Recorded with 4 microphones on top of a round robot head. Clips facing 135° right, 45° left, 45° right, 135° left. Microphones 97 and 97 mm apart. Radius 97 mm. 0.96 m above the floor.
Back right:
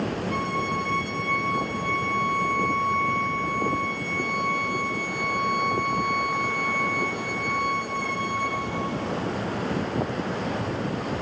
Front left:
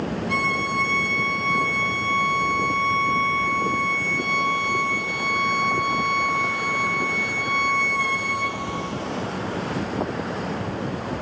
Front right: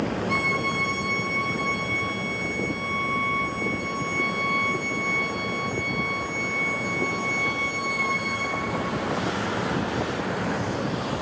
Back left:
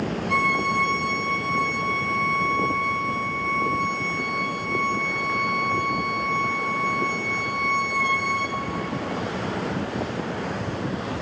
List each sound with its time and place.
0.3 s a violin: 40° left, 1.9 m